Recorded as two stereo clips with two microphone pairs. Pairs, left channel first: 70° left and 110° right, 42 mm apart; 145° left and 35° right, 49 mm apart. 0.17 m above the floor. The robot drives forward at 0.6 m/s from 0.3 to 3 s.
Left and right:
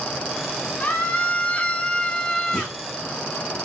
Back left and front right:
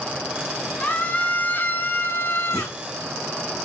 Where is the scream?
85° left, 1.7 m; by 2.8 s 135° left, 2 m.